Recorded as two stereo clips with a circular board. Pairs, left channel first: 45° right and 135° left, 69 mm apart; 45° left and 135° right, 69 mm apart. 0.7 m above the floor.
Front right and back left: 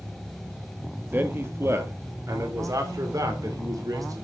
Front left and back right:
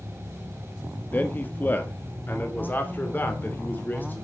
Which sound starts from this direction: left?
A man speaking, at 1.1 s.